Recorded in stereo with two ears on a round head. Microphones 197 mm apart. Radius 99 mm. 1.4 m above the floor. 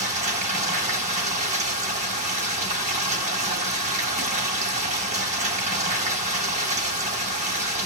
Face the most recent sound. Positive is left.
turn(degrees=-35)  # may be behind; listen again after turning